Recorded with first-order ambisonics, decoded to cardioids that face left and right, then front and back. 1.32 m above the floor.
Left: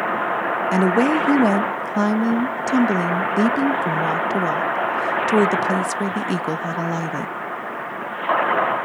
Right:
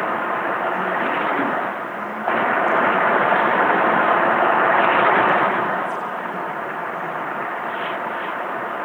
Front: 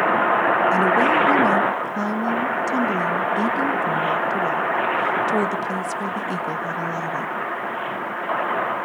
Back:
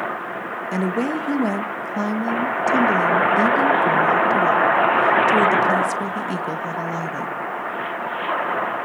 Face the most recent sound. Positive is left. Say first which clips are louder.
# left 3 dB, front 7 dB
turn(degrees=95)